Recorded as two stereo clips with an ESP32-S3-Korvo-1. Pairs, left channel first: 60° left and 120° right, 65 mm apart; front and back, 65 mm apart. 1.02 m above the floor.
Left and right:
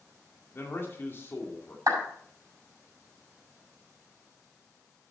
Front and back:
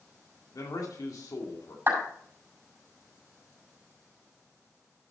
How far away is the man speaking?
About 2 m.